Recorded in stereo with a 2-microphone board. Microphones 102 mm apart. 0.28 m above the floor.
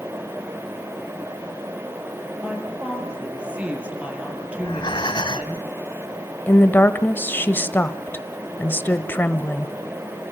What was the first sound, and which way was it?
A woman speaking, 10° right (ahead or behind).